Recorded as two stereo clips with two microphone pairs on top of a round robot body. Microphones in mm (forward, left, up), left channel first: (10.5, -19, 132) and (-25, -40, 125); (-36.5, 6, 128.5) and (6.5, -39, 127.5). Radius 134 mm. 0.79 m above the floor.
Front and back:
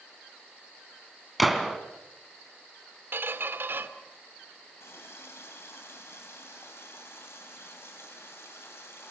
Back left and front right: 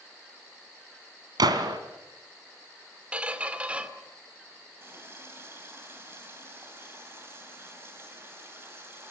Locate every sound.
1.4 s a gunshot: 60° right, 2.5 m
3.1 s a squeak: 115° right, 2 m
4.8 s a running tap: 10° left, 4 m